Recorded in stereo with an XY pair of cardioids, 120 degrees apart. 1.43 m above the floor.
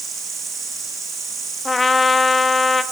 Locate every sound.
0.0 s an insect: 35° right, 8.5 m
1.6 s a trumpet: 15° left, 1.7 m